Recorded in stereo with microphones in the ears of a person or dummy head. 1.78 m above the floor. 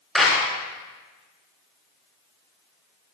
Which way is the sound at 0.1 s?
Centre (ahead or behind).